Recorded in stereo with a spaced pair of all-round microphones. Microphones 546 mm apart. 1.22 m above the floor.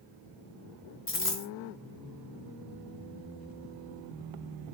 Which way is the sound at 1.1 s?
20° left (ahead or behind).